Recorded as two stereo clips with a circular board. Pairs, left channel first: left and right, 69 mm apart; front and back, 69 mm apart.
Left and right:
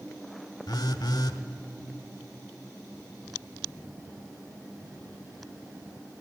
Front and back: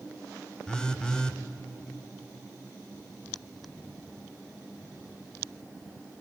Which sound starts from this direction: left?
A phone buzzing, at 0.7 s.